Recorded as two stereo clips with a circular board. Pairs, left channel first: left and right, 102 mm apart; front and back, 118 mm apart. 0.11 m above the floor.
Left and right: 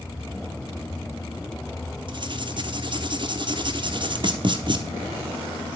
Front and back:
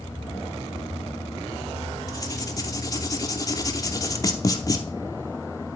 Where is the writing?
55° right, 0.8 m.